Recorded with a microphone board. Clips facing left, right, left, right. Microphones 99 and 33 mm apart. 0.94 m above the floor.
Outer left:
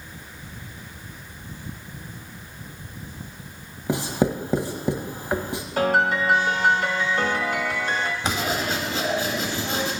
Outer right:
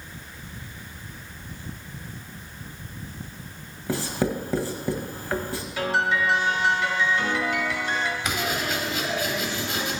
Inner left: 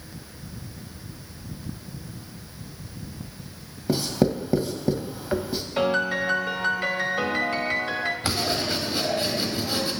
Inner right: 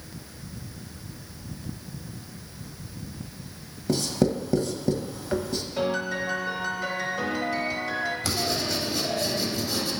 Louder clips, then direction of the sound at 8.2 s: Outer left 2 dB, inner left 2 dB; 35° left (ahead or behind).